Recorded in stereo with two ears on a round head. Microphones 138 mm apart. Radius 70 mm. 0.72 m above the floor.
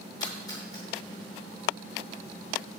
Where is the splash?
25° left (ahead or behind), 7.5 m.